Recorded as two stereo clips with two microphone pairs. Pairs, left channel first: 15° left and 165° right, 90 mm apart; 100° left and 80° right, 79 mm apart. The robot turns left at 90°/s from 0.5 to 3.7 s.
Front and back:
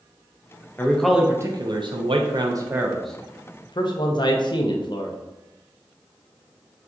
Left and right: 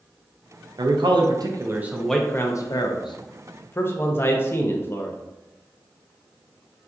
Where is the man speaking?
55° right, 0.5 m; by 5.2 s 45° left, 0.5 m.